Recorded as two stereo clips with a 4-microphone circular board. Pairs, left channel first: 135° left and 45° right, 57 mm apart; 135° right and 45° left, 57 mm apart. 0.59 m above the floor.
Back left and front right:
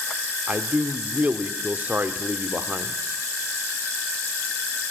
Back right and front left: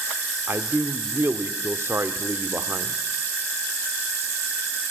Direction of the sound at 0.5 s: 10° left.